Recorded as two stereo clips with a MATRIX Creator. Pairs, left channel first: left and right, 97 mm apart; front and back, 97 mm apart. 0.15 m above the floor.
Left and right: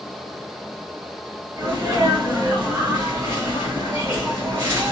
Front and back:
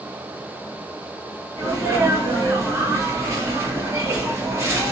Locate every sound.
1.6 s a sneeze: 140° right, 1.7 m